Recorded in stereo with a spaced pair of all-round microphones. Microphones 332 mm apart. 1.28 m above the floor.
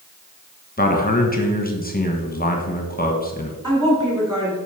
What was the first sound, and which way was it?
A man speaking, 25° left (ahead or behind).